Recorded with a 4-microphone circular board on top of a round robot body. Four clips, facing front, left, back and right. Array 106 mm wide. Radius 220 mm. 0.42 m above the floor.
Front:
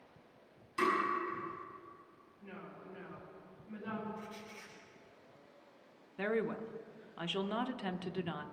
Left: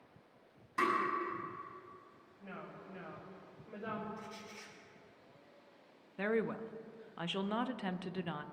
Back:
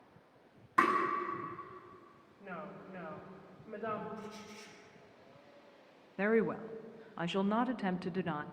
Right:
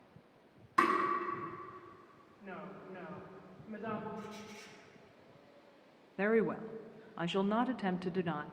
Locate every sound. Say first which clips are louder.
0.8 s tapping: right 4 dB, back 3 dB; 165° right, 4.5 m
2.4 s a woman speaking: right 2 dB, back 4 dB; 170° left, 3 m
4.2 s a squeak: right 2 dB, back 1 dB; 55° left, 3.5 m
6.2 s a woman speaking: right 4 dB, back 4 dB; 145° right, 0.8 m